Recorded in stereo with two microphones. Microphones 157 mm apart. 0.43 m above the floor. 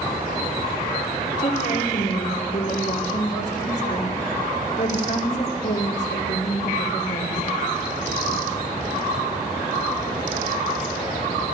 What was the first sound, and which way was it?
A woman speaking, 50° left (ahead or behind).